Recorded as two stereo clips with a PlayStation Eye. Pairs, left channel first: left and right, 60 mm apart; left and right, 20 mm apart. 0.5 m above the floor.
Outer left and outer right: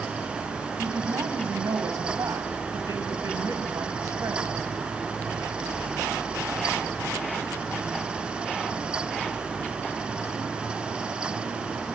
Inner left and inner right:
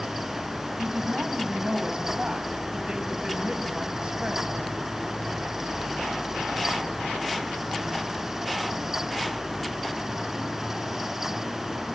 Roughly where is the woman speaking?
Right.